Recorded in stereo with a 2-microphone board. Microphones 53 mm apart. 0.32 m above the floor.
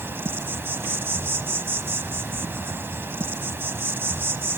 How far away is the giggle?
No giggle in this recording.